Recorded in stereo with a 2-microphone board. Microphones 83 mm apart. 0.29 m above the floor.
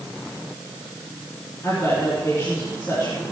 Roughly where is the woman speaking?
Left.